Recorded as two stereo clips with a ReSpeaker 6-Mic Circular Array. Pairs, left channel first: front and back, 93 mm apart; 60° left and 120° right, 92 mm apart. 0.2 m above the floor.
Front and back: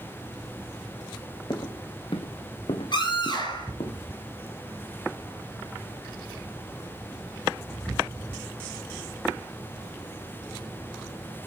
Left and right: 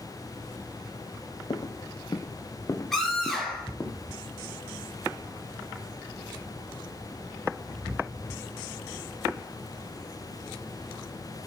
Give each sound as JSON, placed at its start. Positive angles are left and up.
{"t": 1.5, "sound": "footsteps", "azimuth_deg": 30, "distance_m": 0.8}
{"t": 2.9, "sound": "a scream", "azimuth_deg": -25, "distance_m": 4.0}